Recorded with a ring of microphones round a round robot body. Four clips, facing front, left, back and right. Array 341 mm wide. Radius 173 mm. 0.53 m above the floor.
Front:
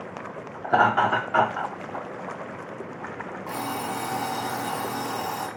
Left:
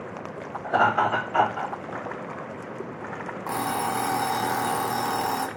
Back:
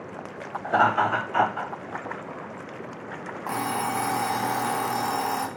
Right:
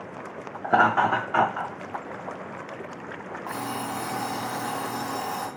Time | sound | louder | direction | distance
0.6 | laughter | right 1 dB, front 1 dB | 65° right | 0.9 m
3.5 | an alarm clock | left 5 dB, back 4 dB | 125° left | 0.7 m